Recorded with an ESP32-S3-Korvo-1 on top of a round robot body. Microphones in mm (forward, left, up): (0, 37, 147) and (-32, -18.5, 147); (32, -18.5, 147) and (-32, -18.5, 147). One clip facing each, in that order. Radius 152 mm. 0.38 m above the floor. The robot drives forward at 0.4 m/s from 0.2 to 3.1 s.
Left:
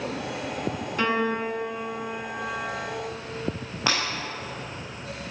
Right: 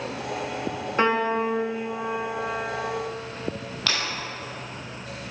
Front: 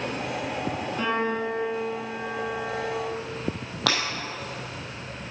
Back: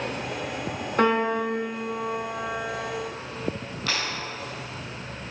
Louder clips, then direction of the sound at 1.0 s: Right 3 dB, back 5 dB; 175° right.